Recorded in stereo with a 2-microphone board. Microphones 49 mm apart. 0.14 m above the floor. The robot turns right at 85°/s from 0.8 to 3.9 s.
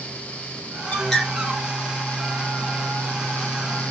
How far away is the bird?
About 3.5 m.